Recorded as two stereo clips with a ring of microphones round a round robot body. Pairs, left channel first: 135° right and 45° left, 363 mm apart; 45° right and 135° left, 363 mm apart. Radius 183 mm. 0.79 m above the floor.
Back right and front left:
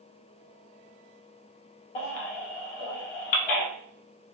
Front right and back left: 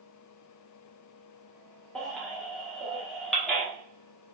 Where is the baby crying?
135° right, 1.0 m.